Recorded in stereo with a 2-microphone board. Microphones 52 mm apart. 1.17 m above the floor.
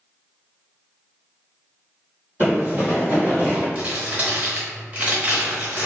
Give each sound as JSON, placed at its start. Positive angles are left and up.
{"t": 2.4, "sound": "running footsteps", "side_deg": -40, "distance_m": 1.9}
{"t": 3.8, "sound": "crumpling", "side_deg": -30, "distance_m": 1.0}